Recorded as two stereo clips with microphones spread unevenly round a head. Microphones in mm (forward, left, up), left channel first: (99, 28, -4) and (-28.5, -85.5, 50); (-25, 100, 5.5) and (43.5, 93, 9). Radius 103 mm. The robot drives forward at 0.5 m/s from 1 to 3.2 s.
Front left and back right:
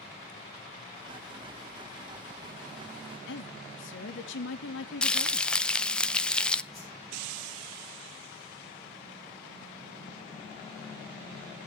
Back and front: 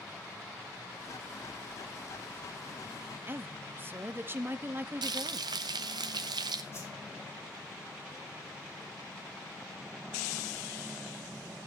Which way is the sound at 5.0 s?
45° right.